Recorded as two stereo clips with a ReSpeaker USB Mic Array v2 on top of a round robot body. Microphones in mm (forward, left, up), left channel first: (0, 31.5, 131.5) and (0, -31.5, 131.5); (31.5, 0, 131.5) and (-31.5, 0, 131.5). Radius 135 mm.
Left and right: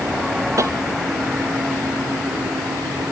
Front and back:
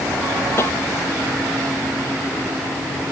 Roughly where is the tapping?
Ahead right.